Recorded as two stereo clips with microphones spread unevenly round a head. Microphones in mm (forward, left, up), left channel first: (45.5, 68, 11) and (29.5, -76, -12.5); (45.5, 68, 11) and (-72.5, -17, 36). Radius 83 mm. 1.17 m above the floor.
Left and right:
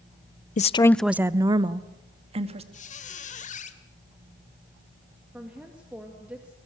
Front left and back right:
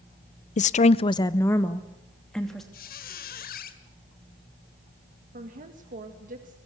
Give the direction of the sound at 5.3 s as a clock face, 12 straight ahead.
6 o'clock.